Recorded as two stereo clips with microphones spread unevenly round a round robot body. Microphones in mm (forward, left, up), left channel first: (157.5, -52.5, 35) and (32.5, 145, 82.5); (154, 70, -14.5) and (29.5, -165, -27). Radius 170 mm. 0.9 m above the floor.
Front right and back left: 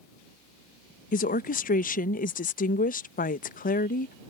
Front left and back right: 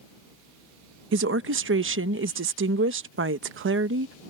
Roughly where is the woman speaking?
Right.